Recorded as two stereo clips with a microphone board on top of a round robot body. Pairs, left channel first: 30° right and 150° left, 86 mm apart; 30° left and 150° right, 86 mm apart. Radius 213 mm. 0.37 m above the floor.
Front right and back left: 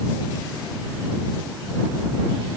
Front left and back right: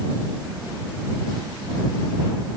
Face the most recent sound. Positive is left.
No sound to turn to.